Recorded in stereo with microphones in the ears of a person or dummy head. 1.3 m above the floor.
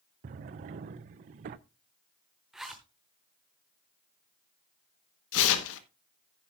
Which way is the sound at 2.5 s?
5° right (ahead or behind).